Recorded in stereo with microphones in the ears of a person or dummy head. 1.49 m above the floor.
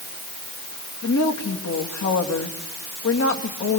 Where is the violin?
No violin in this recording.